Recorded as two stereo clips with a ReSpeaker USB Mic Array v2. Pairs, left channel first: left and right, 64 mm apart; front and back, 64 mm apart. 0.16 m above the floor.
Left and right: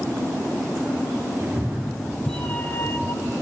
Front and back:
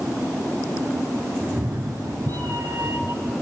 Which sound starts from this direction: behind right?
A cat meowing, at 1.4 s.